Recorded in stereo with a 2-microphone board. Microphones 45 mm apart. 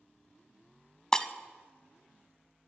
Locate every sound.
1.1 s breaking glass: 20° left (ahead or behind), 0.5 m